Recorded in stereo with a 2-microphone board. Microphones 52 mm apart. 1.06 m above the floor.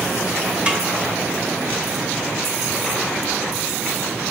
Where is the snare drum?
20° right (ahead or behind), 0.8 m.